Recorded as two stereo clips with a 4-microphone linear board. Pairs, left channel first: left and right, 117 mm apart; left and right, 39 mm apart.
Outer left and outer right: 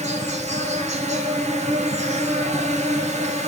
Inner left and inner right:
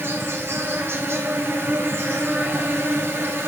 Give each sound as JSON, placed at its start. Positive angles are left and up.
{"t": 0.0, "sound": "an insect", "side_deg": -75, "distance_m": 1.2}